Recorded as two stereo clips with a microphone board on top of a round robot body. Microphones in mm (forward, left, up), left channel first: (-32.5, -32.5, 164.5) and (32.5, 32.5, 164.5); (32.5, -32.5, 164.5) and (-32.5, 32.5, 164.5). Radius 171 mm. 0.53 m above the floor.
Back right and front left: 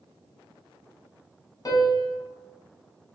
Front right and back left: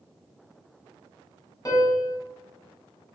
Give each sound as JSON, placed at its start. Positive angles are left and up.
{"t": 1.6, "sound": "a piano", "azimuth_deg": -95, "distance_m": 1.0}